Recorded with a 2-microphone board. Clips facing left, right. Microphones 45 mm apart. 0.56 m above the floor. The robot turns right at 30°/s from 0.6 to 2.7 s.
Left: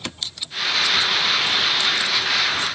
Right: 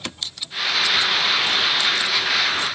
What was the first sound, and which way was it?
Only background noise.